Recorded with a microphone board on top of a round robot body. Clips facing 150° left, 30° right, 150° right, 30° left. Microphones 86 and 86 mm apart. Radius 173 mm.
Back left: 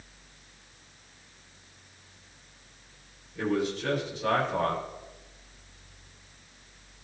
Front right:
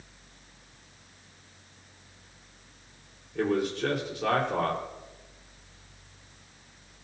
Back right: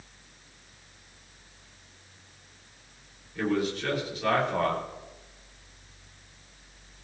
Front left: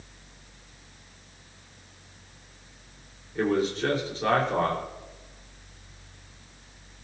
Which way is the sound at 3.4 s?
25° right.